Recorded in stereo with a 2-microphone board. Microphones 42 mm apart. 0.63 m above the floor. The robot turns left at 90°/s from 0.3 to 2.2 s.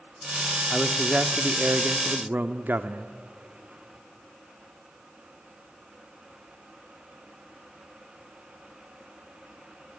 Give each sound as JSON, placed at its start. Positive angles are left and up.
{"t": 0.7, "sound": "a man speaking", "azimuth_deg": 20, "distance_m": 1.0}